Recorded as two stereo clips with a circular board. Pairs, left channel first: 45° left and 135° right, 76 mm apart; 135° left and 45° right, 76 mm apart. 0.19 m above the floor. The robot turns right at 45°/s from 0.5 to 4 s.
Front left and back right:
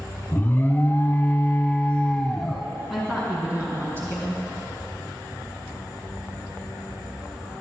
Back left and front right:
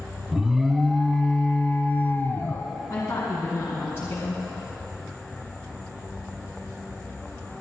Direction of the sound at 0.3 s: 35° left.